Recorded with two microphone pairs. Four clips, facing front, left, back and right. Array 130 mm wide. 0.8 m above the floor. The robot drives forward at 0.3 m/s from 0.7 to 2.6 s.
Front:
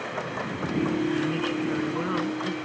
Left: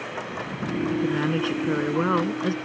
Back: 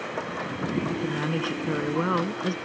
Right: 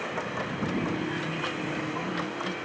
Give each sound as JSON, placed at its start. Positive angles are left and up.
{"t": 0.9, "sound": "a woman speaking", "azimuth_deg": 120}